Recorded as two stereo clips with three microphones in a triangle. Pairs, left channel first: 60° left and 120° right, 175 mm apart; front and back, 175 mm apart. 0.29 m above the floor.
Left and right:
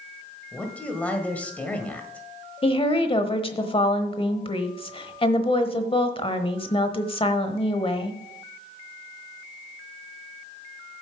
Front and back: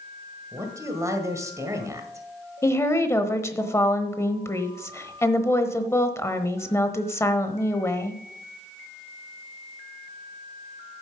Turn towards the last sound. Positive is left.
turn(degrees=60)